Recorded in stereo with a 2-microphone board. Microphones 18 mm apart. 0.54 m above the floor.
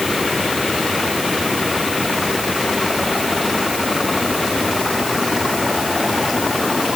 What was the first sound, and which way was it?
Only background noise.